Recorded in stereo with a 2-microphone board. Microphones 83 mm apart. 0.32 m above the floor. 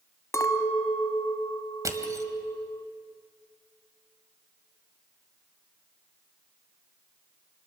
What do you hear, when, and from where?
0.3 s a clink: 40° left (ahead or behind), 1.1 m
1.9 s crushing: 45° right (ahead or behind), 1.5 m